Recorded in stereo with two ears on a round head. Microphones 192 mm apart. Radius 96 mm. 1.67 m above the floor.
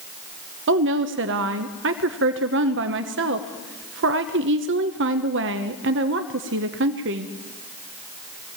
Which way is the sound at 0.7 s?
60° right (ahead or behind).